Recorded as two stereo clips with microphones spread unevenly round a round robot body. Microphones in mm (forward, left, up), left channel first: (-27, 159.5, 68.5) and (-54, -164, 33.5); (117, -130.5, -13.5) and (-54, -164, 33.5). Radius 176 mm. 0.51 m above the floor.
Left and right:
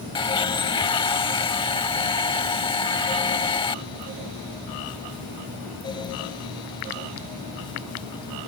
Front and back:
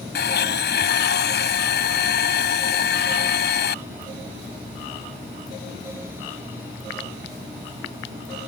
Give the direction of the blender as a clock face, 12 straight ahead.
12 o'clock.